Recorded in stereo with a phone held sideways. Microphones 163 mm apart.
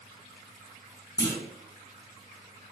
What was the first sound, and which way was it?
A clunk, 20° left (ahead or behind).